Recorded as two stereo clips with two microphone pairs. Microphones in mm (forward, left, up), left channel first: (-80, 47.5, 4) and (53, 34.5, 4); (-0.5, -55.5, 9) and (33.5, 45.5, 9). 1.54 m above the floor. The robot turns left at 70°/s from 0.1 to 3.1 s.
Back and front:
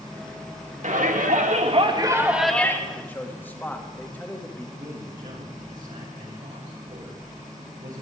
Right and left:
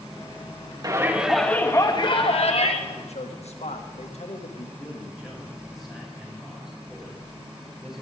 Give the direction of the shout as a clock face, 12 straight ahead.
11 o'clock.